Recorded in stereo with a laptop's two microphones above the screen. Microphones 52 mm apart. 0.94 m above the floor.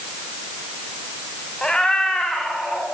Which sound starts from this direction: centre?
A cat meowing, at 1.6 s.